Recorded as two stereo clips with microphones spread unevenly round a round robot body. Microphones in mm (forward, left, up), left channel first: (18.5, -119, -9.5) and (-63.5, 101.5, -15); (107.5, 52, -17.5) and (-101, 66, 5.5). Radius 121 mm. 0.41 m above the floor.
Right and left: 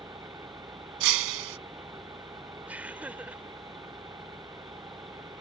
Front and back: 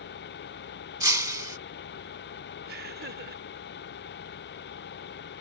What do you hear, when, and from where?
0.0 s an engine running: 30° left
1.0 s breaking glass: 100° left
2.7 s laughter: 170° right